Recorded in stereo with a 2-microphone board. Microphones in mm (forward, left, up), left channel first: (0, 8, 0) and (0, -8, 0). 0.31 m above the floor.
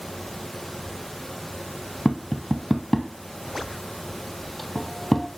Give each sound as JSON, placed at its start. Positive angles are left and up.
{"t": 2.0, "sound": "tapping", "side_deg": 10, "distance_m": 0.6}